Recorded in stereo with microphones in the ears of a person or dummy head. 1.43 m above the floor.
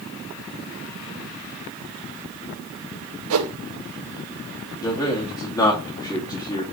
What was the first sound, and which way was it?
A whoosh, 75° right (ahead or behind).